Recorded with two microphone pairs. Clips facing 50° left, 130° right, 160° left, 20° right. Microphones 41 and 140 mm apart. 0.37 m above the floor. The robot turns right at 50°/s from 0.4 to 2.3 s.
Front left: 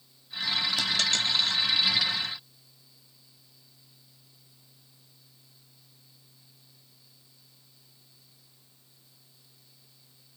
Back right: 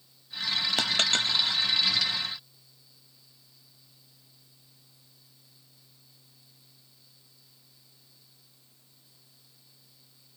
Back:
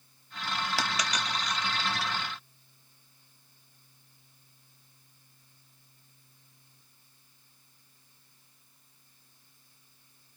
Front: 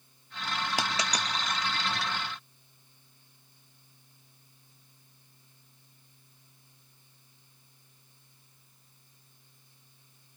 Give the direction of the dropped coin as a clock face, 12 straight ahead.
3 o'clock.